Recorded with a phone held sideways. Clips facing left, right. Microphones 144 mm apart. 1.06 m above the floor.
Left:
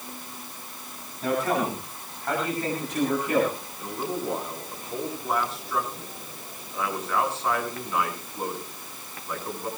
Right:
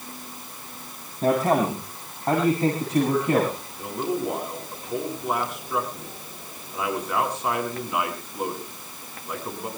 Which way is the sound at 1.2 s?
40° right (ahead or behind).